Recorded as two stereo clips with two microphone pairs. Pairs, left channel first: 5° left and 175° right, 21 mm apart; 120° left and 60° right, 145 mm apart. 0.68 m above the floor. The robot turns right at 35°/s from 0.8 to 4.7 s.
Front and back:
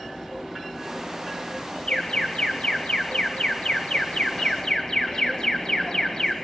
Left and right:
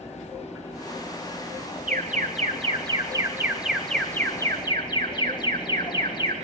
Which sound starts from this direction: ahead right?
An alarm, at 1.9 s.